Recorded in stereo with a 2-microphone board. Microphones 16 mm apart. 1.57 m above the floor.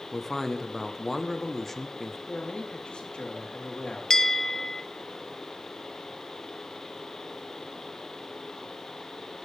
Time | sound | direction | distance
0.1 | a man speaking | 15° left (ahead or behind) | 1.2 m
2.3 | a man speaking | 90° left | 4 m
4.1 | a bell | 25° left (ahead or behind) | 0.7 m